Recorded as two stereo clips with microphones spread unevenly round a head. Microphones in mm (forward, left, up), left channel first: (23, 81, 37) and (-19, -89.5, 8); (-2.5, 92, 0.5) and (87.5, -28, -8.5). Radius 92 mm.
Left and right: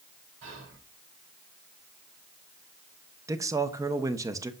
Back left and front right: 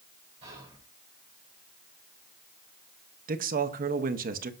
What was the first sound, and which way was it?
Whispering, 115° right.